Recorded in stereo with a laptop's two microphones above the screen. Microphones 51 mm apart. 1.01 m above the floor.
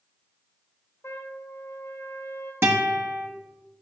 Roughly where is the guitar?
Right.